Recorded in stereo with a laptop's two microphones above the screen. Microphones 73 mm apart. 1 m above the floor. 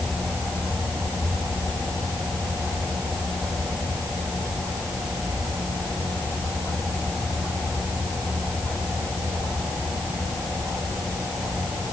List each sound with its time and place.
Only background noise.